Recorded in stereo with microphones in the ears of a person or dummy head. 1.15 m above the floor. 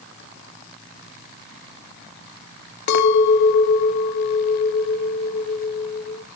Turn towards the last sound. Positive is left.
turn(degrees=65)  # may be behind; listen again after turning